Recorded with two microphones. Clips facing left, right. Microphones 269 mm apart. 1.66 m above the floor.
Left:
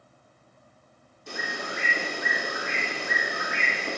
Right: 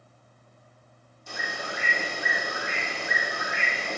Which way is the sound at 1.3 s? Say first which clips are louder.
Left 2 dB; 70° left (ahead or behind).